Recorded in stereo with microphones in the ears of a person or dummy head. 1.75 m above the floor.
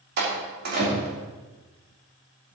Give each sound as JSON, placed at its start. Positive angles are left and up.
{"t": 0.2, "sound": "a door slam", "side_deg": -55, "distance_m": 3.0}